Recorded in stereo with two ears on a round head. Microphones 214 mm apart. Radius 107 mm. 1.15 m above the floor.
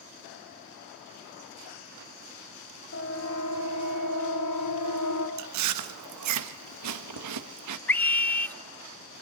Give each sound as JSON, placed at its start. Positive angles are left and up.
{"t": 2.9, "sound": "a siren", "side_deg": 55, "distance_m": 2.5}
{"t": 5.4, "sound": "chewing", "side_deg": -75, "distance_m": 1.1}
{"t": 7.9, "sound": "a scream", "side_deg": 5, "distance_m": 0.5}